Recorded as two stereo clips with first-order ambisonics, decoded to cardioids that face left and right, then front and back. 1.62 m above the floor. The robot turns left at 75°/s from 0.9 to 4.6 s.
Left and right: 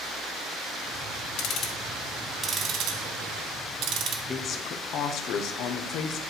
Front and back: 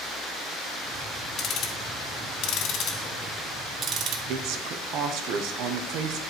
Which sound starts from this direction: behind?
A woman speaking, at 4.3 s.